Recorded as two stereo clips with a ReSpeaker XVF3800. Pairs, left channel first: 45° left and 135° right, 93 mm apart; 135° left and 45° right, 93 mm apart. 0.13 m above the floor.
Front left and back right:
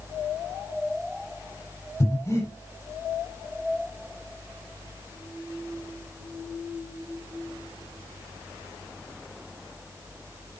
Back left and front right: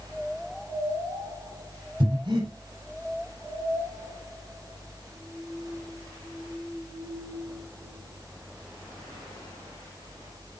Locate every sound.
2.0 s breathing: 15° right, 5 m